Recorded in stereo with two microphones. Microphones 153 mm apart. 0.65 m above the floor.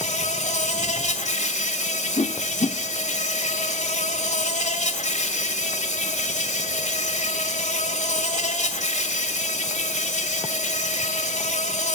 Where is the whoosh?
45° left (ahead or behind), 1.1 m.